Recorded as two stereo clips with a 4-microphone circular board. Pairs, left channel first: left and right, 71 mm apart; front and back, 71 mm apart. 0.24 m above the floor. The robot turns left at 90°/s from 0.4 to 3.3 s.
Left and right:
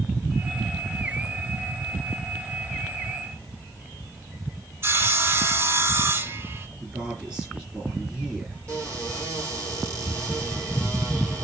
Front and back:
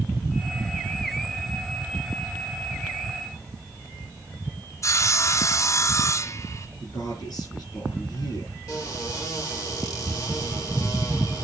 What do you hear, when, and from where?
4.8 s sawing: 40° right, 1.0 m
6.8 s a man speaking: 20° right, 6.5 m
8.7 s a cupboard door: 45° right, 7 m